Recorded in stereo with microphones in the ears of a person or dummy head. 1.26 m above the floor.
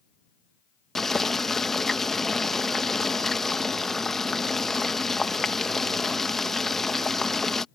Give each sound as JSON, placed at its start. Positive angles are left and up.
{"t": 0.9, "sound": "boiling", "side_deg": 0}